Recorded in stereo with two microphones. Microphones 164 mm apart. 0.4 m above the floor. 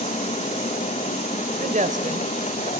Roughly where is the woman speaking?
Right.